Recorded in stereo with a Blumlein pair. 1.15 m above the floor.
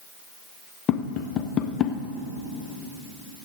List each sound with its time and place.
0.9 s tapping: 30° left, 0.8 m